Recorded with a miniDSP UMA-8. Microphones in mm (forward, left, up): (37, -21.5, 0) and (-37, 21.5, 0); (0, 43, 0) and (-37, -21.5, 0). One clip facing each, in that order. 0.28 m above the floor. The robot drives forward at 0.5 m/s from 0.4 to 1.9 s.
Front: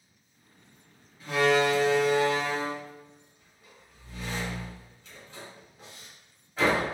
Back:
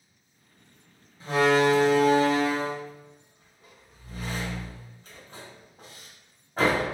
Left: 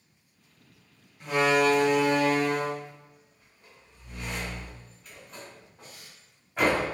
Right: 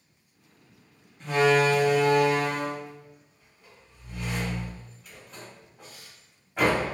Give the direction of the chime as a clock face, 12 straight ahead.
I don't hear a chime.